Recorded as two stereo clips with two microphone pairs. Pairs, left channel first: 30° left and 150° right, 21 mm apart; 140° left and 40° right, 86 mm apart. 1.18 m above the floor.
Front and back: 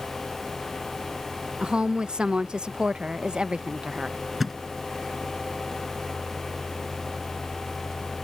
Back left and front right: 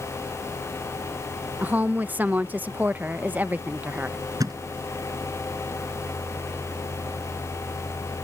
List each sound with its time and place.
1.6 s a woman speaking: 110° right
4.4 s a thud: 70° right